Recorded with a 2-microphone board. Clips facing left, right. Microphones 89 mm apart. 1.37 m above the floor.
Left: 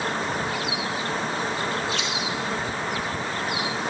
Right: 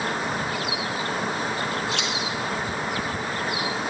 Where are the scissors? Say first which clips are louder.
Even; 85° right, 1.9 m.